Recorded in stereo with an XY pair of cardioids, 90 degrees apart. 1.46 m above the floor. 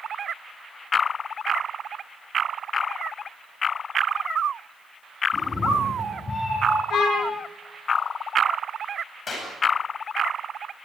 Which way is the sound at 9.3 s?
55° left.